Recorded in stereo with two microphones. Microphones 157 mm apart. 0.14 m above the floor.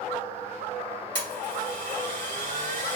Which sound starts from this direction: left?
A blender, at 1.1 s.